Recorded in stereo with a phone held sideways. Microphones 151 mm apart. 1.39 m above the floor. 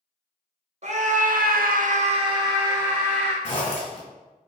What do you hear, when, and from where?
0.8 s a scream: 50° right (ahead or behind), 0.8 m; by 3.3 s 10° right (ahead or behind), 1.2 m
3.4 s a zipper: 45° left (ahead or behind), 1.8 m